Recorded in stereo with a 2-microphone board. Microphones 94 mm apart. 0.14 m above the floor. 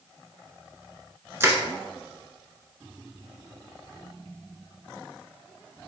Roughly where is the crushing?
Right.